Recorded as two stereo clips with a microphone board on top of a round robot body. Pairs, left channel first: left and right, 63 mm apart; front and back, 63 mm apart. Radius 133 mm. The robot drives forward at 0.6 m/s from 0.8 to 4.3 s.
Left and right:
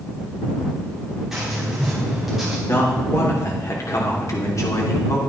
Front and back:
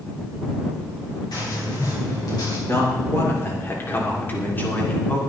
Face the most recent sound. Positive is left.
turn(degrees=60)